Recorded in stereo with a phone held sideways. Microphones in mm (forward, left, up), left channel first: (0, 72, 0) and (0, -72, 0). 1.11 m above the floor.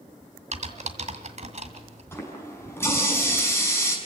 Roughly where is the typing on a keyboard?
Right.